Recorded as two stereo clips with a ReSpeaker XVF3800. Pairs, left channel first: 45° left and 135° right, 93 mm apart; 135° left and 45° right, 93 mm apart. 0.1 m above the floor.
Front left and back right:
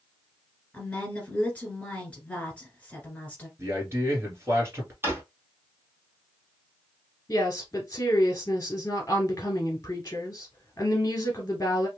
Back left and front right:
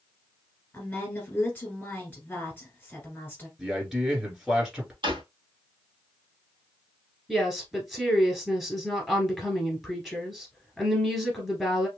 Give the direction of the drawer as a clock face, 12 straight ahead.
2 o'clock.